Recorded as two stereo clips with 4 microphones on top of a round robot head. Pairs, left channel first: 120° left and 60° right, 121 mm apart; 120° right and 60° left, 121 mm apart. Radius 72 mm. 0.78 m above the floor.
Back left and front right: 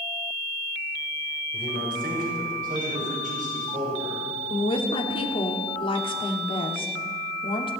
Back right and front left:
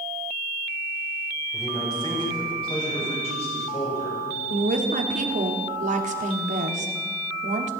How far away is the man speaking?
About 3 m.